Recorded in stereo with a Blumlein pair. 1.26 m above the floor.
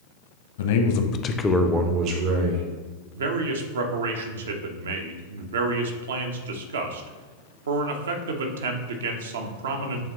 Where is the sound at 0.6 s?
60° left, 1.0 m; by 2.6 s 60° right, 1.2 m.